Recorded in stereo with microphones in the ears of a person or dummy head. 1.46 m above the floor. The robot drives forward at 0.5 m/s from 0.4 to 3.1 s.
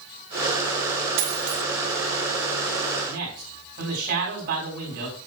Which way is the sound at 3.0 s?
55° right (ahead or behind).